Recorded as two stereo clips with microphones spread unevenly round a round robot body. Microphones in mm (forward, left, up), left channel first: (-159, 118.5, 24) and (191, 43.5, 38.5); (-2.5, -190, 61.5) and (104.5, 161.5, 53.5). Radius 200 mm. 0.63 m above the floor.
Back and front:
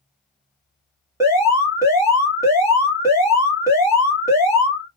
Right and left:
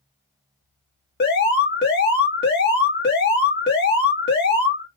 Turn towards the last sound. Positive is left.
turn(degrees=-90)